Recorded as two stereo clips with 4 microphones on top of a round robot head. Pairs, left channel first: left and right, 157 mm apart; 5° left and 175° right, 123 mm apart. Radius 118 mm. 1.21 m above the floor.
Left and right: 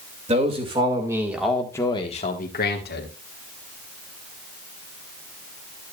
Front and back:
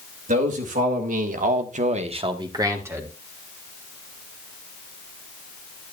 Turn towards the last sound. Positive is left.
turn(degrees=110)